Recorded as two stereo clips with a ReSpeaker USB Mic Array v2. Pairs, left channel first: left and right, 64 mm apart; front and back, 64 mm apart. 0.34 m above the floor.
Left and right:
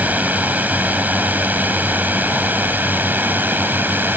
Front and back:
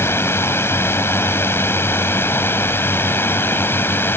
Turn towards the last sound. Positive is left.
turn(degrees=-40)